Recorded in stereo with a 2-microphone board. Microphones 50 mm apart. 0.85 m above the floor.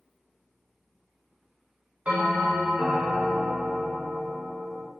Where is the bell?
25° right (ahead or behind), 1.3 m.